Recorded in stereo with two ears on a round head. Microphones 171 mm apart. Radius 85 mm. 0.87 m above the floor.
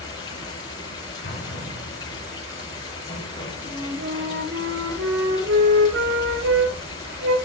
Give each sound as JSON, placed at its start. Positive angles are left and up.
{"t": 0.0, "sound": "running water", "side_deg": 25, "distance_m": 7.5}
{"t": 1.2, "sound": "an explosion", "side_deg": 50, "distance_m": 4.0}
{"t": 3.6, "sound": "a flute", "side_deg": -80, "distance_m": 5.0}